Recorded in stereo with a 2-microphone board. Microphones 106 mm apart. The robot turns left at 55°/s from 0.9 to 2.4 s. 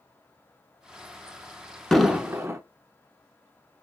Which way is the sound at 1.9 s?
5° left (ahead or behind).